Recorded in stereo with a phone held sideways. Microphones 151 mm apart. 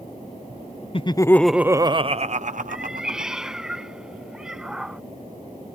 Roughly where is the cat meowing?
Centre.